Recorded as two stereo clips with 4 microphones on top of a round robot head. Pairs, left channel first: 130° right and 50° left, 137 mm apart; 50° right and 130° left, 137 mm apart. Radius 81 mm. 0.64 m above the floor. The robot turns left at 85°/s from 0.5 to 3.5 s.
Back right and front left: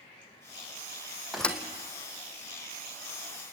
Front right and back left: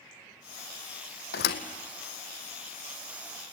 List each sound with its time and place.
1.3 s a thud: 35° right, 1.8 m; by 1.6 s 60° right, 1.8 m